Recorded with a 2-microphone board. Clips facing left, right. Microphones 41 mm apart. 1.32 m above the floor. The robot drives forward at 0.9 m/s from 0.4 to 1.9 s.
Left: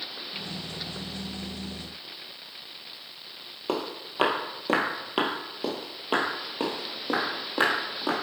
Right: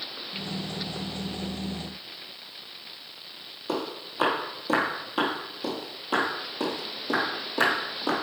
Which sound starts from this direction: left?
Footsteps, at 3.7 s.